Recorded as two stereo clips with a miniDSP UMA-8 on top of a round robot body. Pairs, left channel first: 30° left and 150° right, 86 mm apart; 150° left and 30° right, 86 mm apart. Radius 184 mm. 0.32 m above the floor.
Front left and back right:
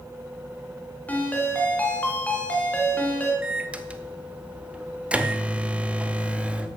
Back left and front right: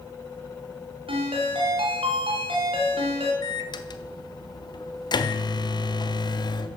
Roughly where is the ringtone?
Ahead right.